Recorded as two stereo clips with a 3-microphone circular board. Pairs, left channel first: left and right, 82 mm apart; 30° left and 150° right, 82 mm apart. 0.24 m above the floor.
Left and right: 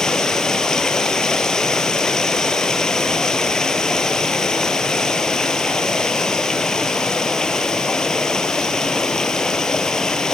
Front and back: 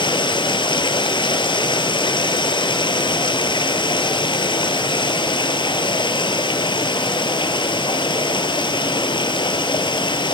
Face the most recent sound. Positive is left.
turn(degrees=10)